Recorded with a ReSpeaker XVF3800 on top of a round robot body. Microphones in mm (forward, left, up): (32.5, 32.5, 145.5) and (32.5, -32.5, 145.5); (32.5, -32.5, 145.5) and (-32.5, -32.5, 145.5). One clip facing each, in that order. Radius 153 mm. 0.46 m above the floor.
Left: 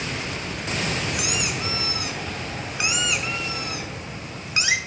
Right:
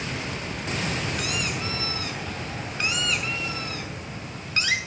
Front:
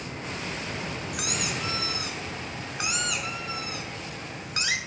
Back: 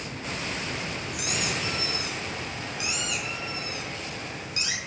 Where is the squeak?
15° left, 1.2 m.